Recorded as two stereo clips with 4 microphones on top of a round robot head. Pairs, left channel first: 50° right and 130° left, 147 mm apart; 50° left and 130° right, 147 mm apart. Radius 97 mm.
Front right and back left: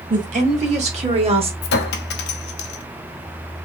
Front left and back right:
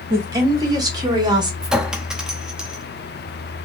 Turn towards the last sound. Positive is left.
turn(degrees=-45)